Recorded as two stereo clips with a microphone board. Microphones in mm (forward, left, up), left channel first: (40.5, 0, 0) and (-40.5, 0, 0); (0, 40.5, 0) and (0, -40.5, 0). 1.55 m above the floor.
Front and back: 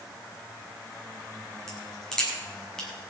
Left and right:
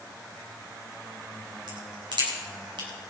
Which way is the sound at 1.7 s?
80° right.